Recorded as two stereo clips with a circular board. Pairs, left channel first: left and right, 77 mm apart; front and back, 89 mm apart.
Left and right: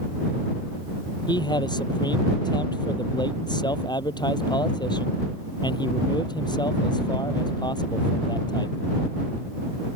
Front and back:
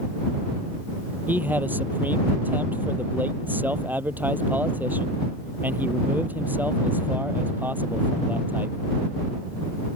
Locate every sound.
1.3 s a man speaking: 110° left